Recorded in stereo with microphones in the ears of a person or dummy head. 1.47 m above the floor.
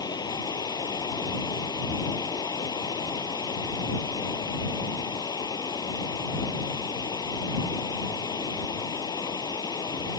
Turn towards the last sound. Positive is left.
turn(degrees=20)  # may be behind; listen again after turning